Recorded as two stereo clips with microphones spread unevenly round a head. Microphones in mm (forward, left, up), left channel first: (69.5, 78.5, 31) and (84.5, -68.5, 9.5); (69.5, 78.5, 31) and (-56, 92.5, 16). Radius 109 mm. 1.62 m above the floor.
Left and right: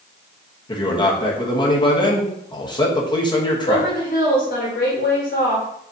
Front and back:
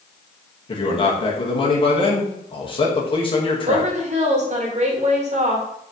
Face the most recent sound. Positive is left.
turn(degrees=145)